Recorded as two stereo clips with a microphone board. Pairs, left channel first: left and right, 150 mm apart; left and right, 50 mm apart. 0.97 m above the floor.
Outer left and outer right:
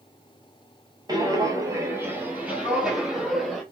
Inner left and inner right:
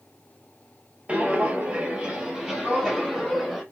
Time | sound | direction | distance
1.1 | footsteps | 25° right (ahead or behind) | 1.0 m